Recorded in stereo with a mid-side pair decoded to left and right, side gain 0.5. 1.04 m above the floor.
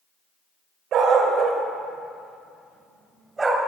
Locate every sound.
0.9 s a dog barking: 65° right, 1.6 m; by 3.6 s 25° right, 2 m